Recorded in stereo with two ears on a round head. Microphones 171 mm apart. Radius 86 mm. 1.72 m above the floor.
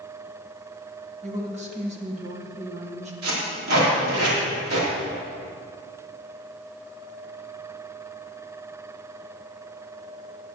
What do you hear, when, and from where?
1.2 s a woman speaking: 35° right (ahead or behind), 1.7 m
3.2 s tape being pulled: 85° right, 4 m